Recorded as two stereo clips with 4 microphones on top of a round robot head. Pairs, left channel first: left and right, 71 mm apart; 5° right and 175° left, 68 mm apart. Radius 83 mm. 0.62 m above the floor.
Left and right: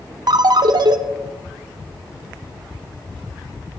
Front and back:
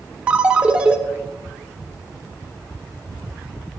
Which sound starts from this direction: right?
A ringtone, at 0.3 s.